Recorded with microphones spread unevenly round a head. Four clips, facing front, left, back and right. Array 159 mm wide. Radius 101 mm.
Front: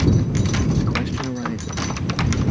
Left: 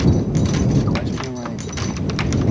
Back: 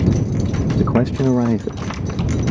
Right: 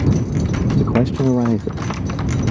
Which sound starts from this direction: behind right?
A man speaking, at 0.8 s.